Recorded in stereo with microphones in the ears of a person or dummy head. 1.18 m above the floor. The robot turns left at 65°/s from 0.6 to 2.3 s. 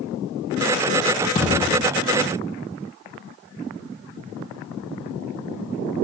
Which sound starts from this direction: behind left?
A thud, at 1.4 s.